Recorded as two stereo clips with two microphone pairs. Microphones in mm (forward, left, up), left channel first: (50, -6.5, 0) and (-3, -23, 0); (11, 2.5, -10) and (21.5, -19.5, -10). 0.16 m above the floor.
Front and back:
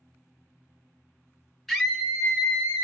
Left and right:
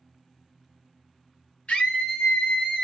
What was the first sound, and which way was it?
A scream, 105° left.